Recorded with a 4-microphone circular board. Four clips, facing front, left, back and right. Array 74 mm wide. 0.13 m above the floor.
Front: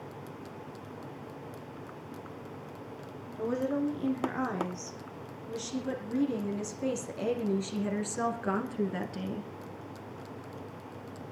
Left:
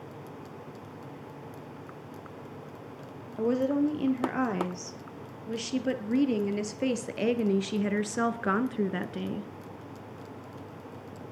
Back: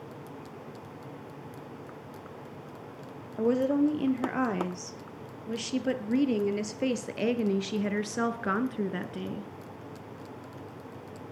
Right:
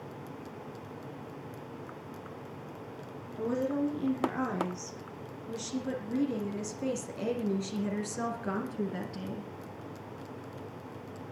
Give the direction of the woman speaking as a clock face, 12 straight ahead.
7 o'clock.